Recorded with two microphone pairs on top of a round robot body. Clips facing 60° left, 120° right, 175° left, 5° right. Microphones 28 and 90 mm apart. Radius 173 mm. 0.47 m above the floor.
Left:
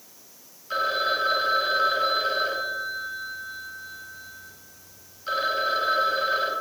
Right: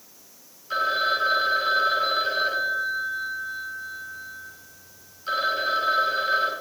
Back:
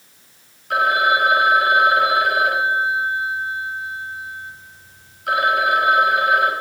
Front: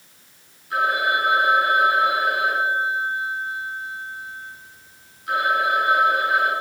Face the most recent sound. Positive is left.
turn(degrees=155)